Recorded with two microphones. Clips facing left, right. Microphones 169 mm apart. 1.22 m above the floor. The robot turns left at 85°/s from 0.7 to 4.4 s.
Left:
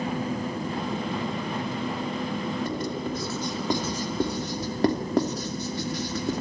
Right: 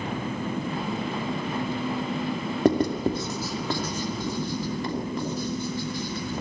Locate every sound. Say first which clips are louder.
2.6 s writing: right 8 dB; 75° right (ahead or behind), 2.5 m; by 6.4 s 75° left (ahead or behind), 2.5 m